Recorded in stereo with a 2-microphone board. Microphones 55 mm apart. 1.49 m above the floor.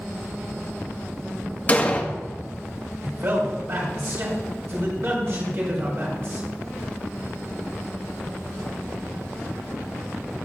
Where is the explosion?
25° left (ahead or behind), 1.3 m.